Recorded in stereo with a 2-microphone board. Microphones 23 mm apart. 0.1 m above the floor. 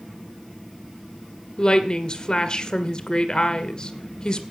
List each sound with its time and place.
1.6 s a woman speaking: 35° left (ahead or behind), 1.8 m